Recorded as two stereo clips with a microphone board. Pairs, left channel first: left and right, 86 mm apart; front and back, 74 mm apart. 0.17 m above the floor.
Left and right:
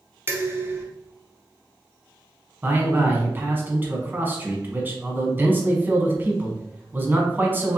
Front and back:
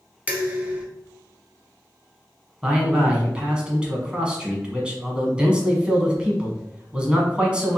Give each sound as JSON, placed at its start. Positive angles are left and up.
{"t": 0.3, "sound": "dishes clattering", "azimuth_deg": -120, "distance_m": 0.9}
{"t": 2.6, "sound": "a man speaking", "azimuth_deg": -120, "distance_m": 1.1}